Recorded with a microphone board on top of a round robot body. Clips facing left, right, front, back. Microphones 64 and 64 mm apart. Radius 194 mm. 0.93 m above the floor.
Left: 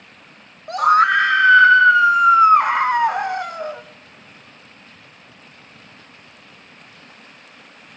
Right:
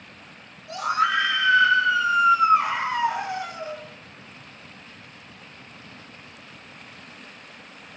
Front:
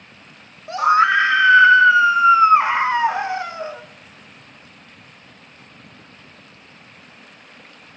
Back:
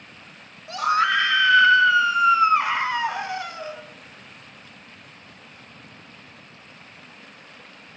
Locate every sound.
0.7 s a scream: 60° left, 1.3 m